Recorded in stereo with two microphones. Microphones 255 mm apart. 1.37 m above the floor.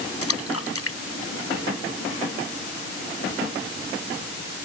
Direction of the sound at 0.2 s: 65° left (ahead or behind).